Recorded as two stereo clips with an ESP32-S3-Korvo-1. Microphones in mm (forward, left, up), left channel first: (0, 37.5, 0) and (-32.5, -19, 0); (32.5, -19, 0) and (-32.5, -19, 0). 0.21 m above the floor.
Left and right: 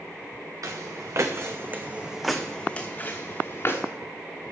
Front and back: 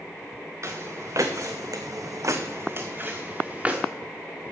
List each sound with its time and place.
0.6 s footsteps: 140° right, 1.5 m; by 3.8 s 105° left, 1.7 m